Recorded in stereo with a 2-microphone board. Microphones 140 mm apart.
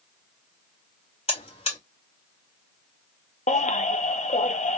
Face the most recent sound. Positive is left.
turn(degrees=55)  # may be behind; listen again after turning